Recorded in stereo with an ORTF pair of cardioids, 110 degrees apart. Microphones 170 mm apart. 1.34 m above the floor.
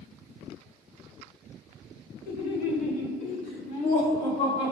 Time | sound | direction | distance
2.3 | laughter | 70° left | 1.7 m